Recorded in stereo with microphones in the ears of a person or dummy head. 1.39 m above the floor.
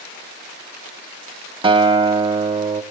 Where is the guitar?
20° right (ahead or behind), 0.5 m.